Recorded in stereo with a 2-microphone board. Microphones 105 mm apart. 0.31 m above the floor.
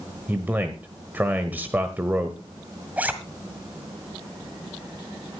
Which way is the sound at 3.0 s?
15° right (ahead or behind).